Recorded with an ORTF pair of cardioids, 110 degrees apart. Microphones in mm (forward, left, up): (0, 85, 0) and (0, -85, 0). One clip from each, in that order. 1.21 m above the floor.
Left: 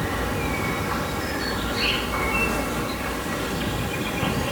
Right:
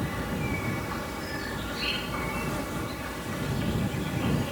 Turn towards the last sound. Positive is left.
turn(degrees=45)